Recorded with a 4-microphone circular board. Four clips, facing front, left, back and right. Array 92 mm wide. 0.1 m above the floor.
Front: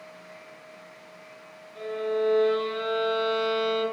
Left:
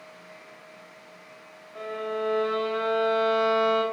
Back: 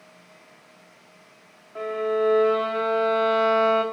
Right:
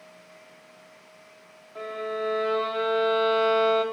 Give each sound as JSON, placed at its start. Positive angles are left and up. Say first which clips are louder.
{"t": 1.8, "sound": "a violin", "louder": "even, back 3 dB", "azimuth_deg": 170, "distance_m": 3.0}